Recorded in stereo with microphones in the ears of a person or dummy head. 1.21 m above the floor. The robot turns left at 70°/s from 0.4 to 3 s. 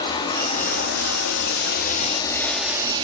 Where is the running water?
150° left, 1.4 m; by 3.0 s 30° right, 1.4 m.